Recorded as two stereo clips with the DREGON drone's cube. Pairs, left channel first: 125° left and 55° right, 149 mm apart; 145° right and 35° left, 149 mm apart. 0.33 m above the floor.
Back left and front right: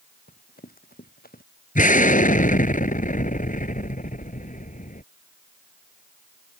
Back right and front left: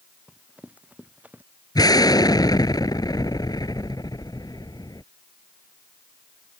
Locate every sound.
0.3 s running footsteps: 115° left
1.8 s an explosion: 150° left